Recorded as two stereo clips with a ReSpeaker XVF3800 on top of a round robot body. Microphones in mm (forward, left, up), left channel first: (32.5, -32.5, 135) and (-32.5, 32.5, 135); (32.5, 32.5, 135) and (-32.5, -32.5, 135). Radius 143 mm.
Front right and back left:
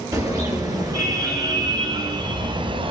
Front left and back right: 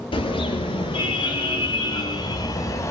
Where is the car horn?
75° left, 5 m; by 2.9 s 105° left, 1.7 m.